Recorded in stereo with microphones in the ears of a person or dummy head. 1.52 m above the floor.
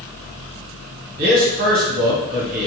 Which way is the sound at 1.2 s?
50° right (ahead or behind).